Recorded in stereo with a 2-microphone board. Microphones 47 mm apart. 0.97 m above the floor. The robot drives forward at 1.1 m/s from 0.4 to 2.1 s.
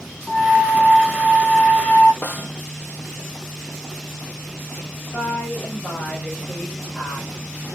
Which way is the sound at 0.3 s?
55° left (ahead or behind).